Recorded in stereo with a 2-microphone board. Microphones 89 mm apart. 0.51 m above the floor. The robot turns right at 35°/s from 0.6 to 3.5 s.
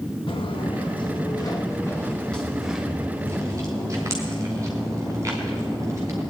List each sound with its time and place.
0.3 s footsteps: 75° left (ahead or behind), 2.5 m; by 6.2 s 35° right (ahead or behind), 8 m